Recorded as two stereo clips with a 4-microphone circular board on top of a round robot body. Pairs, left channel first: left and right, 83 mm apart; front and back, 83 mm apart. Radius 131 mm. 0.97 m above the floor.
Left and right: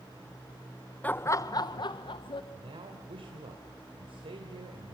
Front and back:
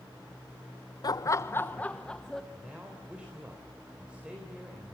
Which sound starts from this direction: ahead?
Laughter, at 1.0 s.